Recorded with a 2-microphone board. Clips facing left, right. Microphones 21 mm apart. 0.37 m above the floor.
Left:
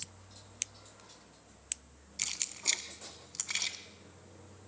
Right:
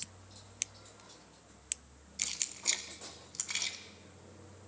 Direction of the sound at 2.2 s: 10° left (ahead or behind).